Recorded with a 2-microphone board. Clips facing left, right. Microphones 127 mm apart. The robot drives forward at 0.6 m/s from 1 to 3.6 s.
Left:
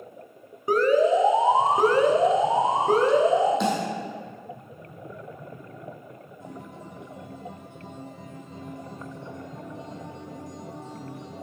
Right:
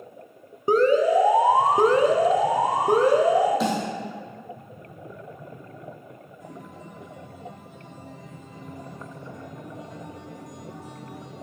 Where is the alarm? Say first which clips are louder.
Right 1 dB; 25° right (ahead or behind), 0.8 m; by 3.5 s 15° right (ahead or behind), 1.6 m.